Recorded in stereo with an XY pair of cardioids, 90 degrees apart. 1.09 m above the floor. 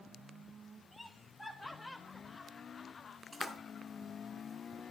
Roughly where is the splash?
Ahead.